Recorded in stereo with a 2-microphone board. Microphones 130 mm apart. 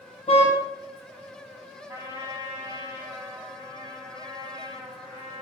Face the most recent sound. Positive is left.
turn(degrees=-20)  # may be behind; listen again after turning